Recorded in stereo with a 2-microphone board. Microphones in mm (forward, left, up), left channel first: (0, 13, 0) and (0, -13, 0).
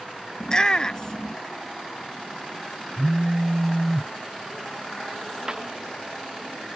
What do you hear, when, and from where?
0.4 s a shout: 30° left (ahead or behind)
3.0 s a phone buzzing: 15° right (ahead or behind)
5.5 s a clap: 30° right (ahead or behind)